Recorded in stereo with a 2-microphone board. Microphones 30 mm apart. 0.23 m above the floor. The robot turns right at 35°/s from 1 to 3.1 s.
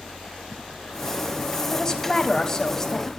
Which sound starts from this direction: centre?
A woman speaking, at 1.7 s.